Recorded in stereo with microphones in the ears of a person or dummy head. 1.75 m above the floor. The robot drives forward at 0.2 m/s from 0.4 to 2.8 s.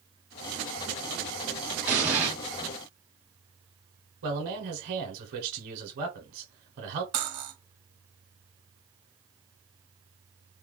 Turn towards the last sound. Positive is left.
turn(degrees=-35)  # may be behind; listen again after turning